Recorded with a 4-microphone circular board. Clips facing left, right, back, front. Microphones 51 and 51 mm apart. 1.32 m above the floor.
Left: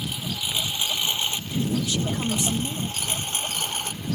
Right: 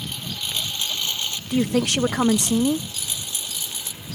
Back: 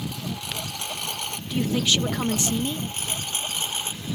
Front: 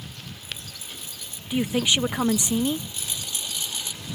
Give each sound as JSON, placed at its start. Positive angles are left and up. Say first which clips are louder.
{"t": 0.0, "sound": "a lawn mower", "louder": "left 1 dB, back 9 dB", "azimuth_deg": 170}
{"t": 1.5, "sound": "a woman speaking", "louder": "right 7 dB, front 1 dB", "azimuth_deg": -75}